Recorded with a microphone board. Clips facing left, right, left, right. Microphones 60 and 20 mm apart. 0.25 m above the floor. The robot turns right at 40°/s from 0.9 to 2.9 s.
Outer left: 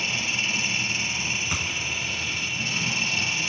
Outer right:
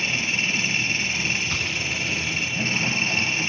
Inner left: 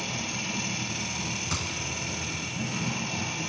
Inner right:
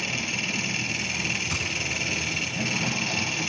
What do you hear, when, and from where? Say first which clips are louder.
0.0 s an engine running: outer right 3 dB, inner right 4 dB; 130° right, 3 m; by 3.5 s 50° right, 3 m
1.5 s a gunshot: outer right 2 dB, inner right 4 dB; 10° left (ahead or behind), 1.1 m; by 1.8 s 25° left (ahead or behind), 1.1 m